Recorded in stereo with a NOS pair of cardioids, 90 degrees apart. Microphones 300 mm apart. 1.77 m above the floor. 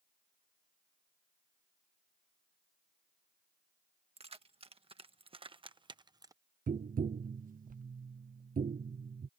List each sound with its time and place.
4.2 s keys jangling: 20° right
6.7 s tapping: 30° right